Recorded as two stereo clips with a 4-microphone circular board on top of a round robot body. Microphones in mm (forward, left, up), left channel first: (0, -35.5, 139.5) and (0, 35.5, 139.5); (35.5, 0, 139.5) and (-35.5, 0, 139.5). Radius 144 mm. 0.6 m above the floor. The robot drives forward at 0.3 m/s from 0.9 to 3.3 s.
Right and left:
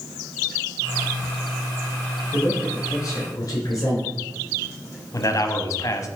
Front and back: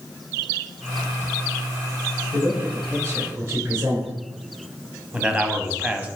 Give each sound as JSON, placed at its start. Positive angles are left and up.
{"t": 2.3, "sound": "a man speaking", "azimuth_deg": -130, "distance_m": 4.0}
{"t": 5.1, "sound": "a man speaking", "azimuth_deg": -115, "distance_m": 1.2}